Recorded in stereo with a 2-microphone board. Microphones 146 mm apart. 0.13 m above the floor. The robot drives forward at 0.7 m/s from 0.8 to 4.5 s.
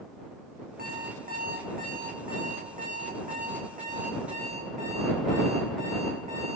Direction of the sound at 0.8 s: 80° right.